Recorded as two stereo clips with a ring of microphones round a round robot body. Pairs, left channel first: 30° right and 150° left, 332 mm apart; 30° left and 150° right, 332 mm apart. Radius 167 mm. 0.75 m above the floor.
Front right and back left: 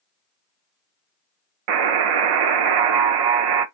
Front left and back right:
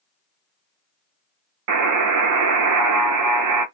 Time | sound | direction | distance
1.7 | a buzzer | 170° left | 0.6 m